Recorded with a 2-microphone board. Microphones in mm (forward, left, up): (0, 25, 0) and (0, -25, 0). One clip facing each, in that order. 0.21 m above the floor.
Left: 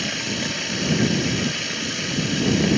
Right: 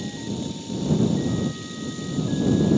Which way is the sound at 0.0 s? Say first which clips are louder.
Left 4 dB; 90° left.